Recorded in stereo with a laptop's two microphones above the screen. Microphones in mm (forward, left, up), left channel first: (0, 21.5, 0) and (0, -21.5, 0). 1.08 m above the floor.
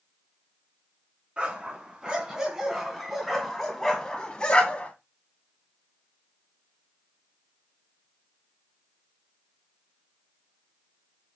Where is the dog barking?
30° right (ahead or behind), 2.5 m; by 4.9 s 25° left (ahead or behind), 2 m.